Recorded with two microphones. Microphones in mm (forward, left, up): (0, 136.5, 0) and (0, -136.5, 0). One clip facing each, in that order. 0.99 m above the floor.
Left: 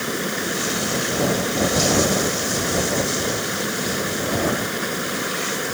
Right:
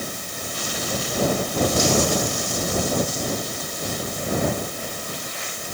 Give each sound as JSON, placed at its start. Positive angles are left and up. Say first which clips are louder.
{"t": 0.0, "sound": "running water", "louder": "left 9 dB", "side_deg": 90}